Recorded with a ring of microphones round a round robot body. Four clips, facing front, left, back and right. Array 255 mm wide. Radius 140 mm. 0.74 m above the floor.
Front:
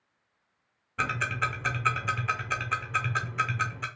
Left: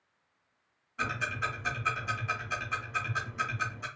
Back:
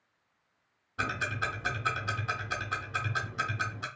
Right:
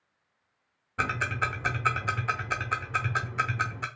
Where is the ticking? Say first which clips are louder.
Right 4 dB, front 3 dB; 75° right, 0.5 m.